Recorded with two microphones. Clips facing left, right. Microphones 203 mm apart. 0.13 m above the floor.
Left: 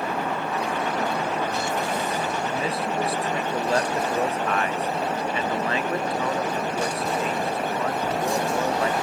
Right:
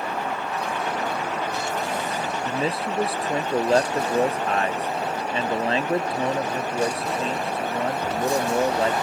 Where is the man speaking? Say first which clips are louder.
Right 1 dB; 30° right (ahead or behind).